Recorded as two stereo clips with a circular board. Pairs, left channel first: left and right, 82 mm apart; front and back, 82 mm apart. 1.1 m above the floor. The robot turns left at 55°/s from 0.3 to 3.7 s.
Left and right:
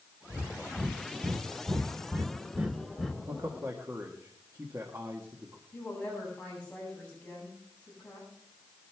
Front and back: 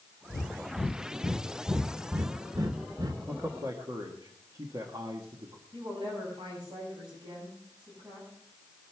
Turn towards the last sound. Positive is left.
turn(degrees=165)